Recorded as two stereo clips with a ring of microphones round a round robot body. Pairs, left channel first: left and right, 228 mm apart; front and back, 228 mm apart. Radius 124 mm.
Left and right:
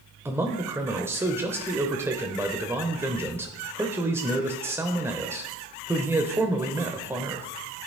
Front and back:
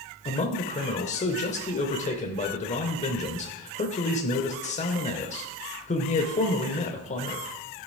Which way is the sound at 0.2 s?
20° right.